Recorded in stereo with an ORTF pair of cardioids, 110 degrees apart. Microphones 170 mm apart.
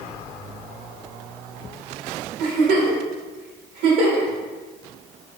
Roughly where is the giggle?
Ahead right.